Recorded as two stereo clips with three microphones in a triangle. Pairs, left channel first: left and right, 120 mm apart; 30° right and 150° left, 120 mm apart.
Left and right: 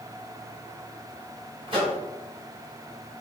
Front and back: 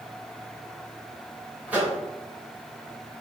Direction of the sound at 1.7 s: 130° right.